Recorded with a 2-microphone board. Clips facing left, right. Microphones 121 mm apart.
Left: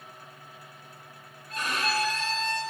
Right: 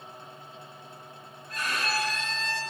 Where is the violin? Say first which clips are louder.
Left 2 dB; 25° left (ahead or behind), 6.5 m.